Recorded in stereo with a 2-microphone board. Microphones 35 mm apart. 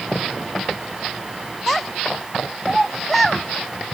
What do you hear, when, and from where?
1.7 s a child speaking: 5° left (ahead or behind)